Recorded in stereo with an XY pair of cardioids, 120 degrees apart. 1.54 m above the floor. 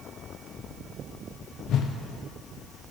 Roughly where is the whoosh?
Ahead left.